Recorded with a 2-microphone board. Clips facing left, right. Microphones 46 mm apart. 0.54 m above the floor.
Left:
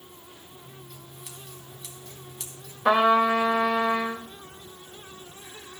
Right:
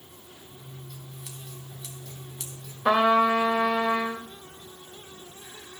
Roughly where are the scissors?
Centre.